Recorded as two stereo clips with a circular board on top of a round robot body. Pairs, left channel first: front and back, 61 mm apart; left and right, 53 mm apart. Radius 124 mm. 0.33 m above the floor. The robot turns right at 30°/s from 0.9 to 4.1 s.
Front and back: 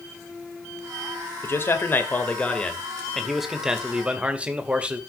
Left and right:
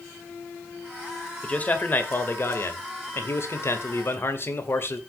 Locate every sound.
1.4 s a man speaking: 30° left, 2.5 m; by 5.0 s 110° left, 2.5 m